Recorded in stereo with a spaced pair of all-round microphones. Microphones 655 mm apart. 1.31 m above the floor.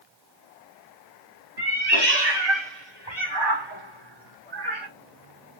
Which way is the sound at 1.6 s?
35° right (ahead or behind).